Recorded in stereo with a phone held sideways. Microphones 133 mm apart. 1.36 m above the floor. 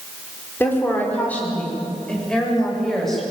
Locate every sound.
0.6 s a woman speaking: 15° left (ahead or behind), 5 m; by 3.2 s 5° left (ahead or behind), 8.5 m